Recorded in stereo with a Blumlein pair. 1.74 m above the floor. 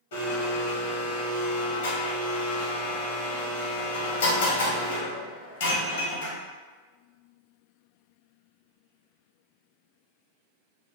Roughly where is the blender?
Ahead left.